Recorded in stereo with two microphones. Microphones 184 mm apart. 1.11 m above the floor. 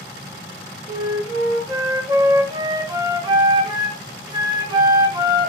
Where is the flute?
20° right (ahead or behind), 0.7 m.